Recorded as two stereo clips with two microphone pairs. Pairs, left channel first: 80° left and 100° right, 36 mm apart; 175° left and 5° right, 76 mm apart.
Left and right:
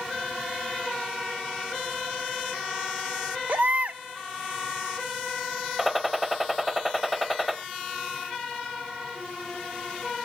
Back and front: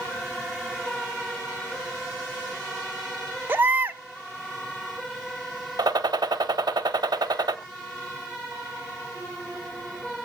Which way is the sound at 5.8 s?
20° right.